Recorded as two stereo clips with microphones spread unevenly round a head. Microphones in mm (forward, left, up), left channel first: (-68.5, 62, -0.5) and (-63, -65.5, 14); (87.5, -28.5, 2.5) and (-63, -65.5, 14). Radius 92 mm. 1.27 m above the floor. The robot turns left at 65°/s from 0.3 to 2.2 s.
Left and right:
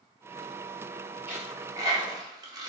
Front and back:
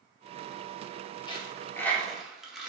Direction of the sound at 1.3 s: 30° right.